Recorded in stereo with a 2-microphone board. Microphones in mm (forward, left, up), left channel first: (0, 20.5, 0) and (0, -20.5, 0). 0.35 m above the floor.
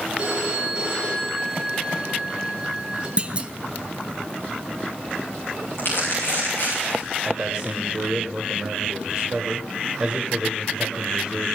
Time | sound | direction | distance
0.2 | a phone ringing | 25° right (ahead or behind) | 4 m
3.2 | a clunk | 30° right (ahead or behind) | 0.5 m
5.8 | crumpling | 55° left (ahead or behind) | 7 m
7.2 | a man speaking | 25° right (ahead or behind) | 1.7 m